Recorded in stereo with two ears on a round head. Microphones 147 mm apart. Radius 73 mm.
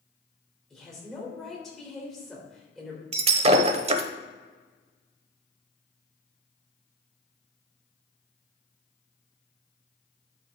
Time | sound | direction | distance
0.7 | a woman speaking | 5° left (ahead or behind) | 2.5 m
3.1 | breaking glass | 40° right (ahead or behind) | 0.7 m